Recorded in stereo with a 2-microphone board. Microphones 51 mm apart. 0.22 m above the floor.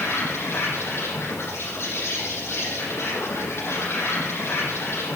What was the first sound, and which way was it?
An insect, 55° left (ahead or behind).